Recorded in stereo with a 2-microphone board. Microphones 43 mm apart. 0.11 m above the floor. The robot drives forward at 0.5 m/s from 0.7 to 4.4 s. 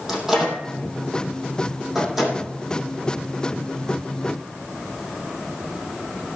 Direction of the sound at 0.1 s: 10° right (ahead or behind).